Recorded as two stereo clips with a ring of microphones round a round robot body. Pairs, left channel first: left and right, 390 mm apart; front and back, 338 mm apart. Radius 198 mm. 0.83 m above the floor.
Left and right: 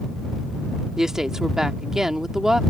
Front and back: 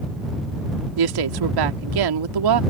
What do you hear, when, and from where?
1.0 s a woman speaking: straight behind